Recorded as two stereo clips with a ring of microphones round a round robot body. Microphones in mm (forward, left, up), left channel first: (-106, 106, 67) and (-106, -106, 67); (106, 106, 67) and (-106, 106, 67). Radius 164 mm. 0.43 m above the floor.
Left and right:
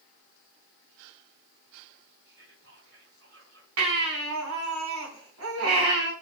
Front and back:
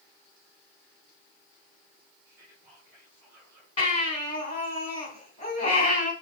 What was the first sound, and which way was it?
Whispering, 95° right.